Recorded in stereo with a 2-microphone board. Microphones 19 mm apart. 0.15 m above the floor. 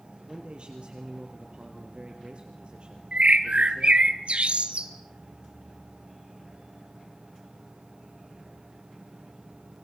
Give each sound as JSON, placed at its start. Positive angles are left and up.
{"t": 0.3, "sound": "a man speaking", "side_deg": -55, "distance_m": 3.5}
{"t": 3.1, "sound": "a bird", "side_deg": -70, "distance_m": 1.6}